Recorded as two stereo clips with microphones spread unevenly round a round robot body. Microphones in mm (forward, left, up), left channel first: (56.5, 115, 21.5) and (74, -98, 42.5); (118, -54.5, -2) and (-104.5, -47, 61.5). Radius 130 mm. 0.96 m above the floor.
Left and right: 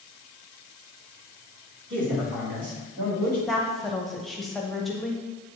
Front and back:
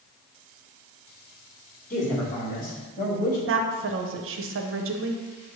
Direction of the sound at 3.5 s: 175° left.